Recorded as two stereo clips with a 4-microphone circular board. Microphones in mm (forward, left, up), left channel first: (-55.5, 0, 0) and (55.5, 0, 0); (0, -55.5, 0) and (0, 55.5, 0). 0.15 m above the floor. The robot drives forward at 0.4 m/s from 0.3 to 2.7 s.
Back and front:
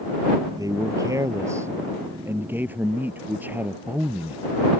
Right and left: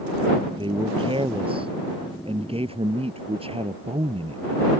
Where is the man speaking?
55° left; by 4.4 s 70° left.